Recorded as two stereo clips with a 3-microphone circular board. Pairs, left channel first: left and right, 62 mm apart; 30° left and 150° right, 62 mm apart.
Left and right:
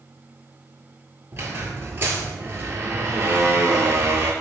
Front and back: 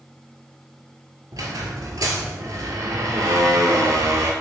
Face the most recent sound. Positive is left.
turn(degrees=-140)